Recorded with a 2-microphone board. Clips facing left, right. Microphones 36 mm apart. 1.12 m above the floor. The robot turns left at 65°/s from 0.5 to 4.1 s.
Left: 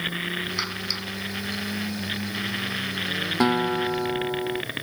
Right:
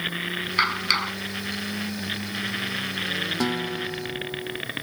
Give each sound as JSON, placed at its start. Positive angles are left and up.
{"t": 0.6, "sound": "a clap", "azimuth_deg": -35}
{"t": 3.4, "sound": "a guitar", "azimuth_deg": 155}